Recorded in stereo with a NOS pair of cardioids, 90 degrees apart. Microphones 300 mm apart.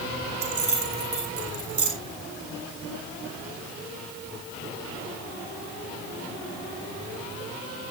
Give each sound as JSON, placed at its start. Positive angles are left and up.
{"t": 0.4, "sound": "keys jangling", "azimuth_deg": -50, "distance_m": 4.5}